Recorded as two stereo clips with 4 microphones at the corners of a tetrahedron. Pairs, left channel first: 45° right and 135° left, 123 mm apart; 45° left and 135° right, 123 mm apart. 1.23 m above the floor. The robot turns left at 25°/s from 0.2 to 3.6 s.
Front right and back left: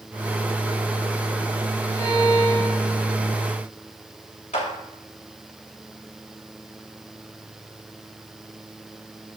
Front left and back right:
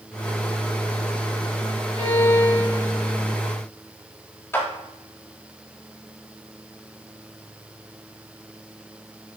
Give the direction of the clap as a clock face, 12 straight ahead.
1 o'clock.